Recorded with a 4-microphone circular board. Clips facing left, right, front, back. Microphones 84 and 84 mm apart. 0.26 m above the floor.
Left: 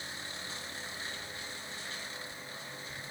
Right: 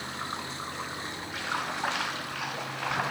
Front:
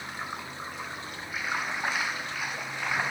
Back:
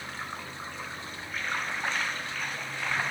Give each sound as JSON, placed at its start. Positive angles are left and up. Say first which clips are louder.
{"t": 0.0, "sound": "running water", "louder": "right 9 dB, front 1 dB", "azimuth_deg": -80}